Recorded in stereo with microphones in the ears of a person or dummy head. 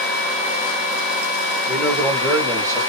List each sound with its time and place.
1.7 s a man speaking: 5° right (ahead or behind), 1.2 m; by 2.8 s 20° right (ahead or behind), 2 m